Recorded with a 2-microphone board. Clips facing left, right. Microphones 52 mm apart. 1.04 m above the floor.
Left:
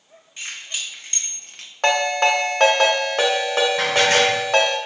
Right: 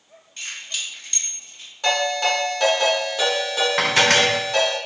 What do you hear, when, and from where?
0.4 s keys jangling: 15° left (ahead or behind), 2 m; by 1.7 s 80° left, 0.5 m
1.8 s a ringtone: 55° left (ahead or behind), 1.2 m
3.8 s dishes clattering: 80° right, 0.6 m